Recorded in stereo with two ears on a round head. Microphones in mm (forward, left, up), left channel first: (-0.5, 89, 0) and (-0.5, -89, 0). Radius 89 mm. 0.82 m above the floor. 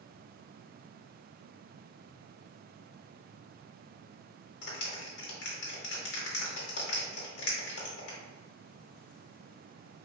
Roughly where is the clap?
Left.